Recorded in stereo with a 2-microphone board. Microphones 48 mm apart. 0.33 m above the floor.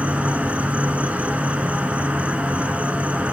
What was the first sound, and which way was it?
An insect, 30° right (ahead or behind).